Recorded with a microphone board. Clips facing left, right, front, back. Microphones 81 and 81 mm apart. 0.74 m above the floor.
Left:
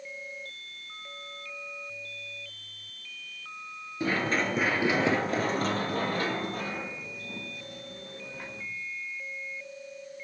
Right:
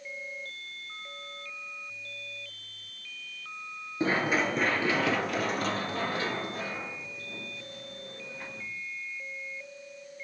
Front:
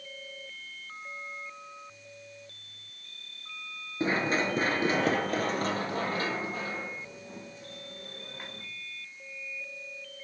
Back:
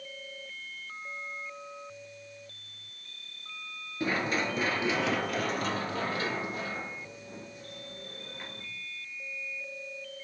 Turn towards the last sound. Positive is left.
turn(degrees=65)